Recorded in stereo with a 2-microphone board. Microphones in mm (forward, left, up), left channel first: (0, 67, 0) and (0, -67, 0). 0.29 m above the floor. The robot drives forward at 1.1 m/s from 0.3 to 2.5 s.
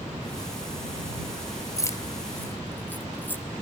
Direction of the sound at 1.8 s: 25° left (ahead or behind).